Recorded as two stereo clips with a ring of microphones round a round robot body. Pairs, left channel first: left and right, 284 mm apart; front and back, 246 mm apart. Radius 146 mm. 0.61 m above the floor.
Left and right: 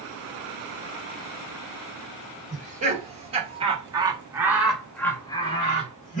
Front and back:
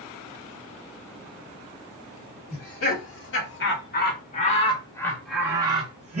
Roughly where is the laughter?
Ahead right.